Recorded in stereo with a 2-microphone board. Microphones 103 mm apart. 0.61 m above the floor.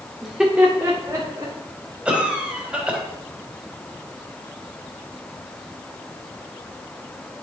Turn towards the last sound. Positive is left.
turn(degrees=-10)  # may be behind; listen again after turning